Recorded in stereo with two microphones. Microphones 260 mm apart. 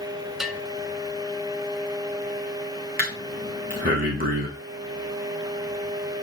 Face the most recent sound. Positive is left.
turn(degrees=-35)  # may be behind; listen again after turning